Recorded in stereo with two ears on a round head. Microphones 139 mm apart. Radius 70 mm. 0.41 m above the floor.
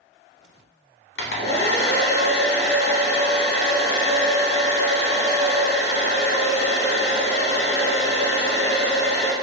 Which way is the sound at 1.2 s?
75° left (ahead or behind).